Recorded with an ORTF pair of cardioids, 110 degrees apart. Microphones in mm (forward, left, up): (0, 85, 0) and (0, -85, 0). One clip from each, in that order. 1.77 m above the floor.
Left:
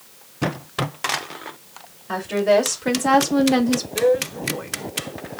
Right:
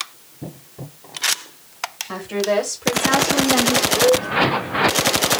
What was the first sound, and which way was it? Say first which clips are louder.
A woman speaking: left 4 dB; 20° left.